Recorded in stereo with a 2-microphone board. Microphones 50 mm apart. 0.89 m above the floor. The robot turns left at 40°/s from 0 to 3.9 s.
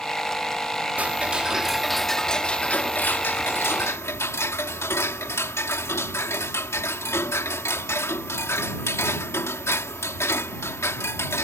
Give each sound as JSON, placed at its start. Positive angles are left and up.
{"t": 1.0, "sound": "ticking", "azimuth_deg": -140}